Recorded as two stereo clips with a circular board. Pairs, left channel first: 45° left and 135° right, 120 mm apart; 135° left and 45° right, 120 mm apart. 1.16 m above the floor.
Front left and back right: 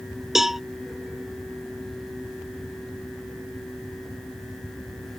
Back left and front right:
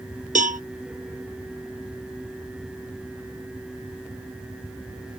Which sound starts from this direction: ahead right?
A cowbell, at 0.3 s.